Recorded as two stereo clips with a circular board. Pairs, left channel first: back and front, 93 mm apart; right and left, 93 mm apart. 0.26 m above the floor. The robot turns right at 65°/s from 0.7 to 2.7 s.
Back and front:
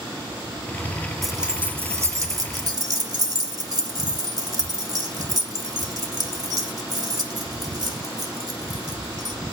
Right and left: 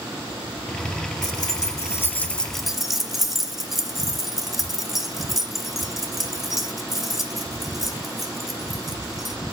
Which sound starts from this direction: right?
Keys jangling, at 1.2 s.